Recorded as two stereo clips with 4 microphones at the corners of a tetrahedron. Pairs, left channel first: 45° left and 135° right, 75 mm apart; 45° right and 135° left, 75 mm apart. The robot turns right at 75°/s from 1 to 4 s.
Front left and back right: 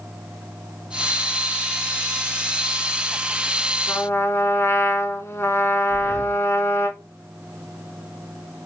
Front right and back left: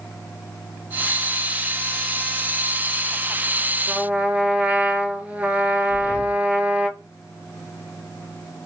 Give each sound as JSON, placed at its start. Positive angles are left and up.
{"t": 3.9, "sound": "a trumpet", "azimuth_deg": 65, "distance_m": 0.7}
{"t": 5.9, "sound": "breathing", "azimuth_deg": -30, "distance_m": 0.8}